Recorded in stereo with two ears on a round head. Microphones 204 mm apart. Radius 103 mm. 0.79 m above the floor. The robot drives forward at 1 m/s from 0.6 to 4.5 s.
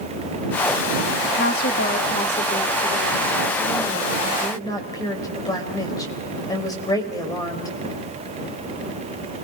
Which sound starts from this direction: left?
A woman speaking, at 1.2 s.